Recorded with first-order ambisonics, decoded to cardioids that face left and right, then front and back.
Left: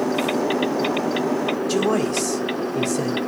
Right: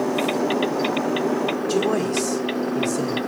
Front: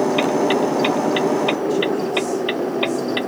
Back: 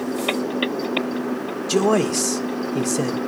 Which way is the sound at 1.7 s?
170° left.